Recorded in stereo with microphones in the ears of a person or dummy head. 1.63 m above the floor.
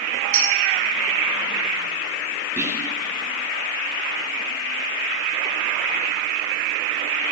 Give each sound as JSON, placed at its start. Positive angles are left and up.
{"t": 0.3, "sound": "a clink", "side_deg": -40, "distance_m": 6.5}
{"t": 2.6, "sound": "whispering", "side_deg": -5, "distance_m": 2.0}